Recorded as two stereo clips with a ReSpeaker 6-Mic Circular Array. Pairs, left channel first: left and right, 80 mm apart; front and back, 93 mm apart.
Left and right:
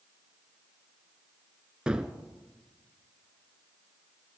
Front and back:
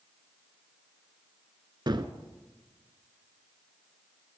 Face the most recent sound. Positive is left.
turn(degrees=-165)